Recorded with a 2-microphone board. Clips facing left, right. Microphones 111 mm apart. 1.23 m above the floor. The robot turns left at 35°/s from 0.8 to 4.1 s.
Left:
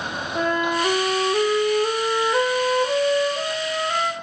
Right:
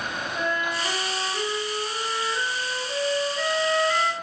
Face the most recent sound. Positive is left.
turn(degrees=25)